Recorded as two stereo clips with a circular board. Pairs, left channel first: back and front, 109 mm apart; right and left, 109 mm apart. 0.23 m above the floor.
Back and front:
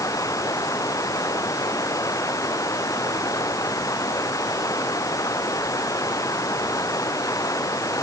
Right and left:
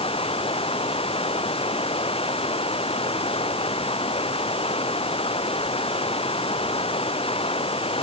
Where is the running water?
120° right.